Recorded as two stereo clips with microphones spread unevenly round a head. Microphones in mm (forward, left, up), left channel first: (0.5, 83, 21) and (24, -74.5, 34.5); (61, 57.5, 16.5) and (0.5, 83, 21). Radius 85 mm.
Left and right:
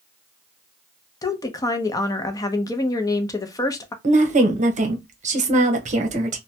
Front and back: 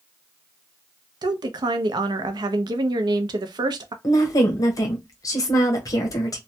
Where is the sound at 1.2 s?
165° left, 0.6 m.